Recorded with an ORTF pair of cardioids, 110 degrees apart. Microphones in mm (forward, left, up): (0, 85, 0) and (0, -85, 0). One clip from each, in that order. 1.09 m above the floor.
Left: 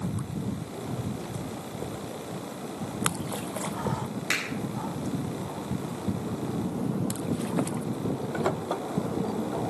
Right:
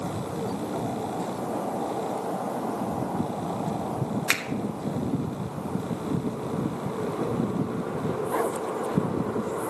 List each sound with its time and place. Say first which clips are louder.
4.3 s a finger snap: right 2 dB; 65° right, 1.5 m